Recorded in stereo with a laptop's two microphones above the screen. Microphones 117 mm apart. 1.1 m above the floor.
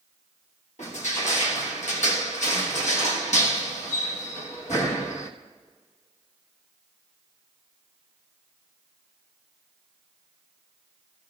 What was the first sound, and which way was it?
Crushing, 80° left.